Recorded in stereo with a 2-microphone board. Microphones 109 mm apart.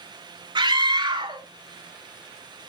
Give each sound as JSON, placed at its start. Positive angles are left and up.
{"t": 0.6, "sound": "a scream", "side_deg": -45, "distance_m": 1.9}